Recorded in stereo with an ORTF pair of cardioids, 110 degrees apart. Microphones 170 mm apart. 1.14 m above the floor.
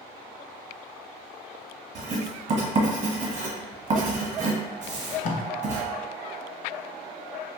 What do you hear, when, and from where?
1.9 s writing: 45° right, 0.9 m
4.9 s tape being pulled: 50° left, 0.6 m